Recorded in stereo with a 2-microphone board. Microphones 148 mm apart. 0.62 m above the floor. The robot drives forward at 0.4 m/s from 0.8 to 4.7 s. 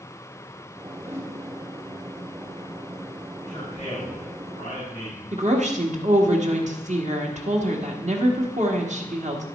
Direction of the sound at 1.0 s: 20° right (ahead or behind).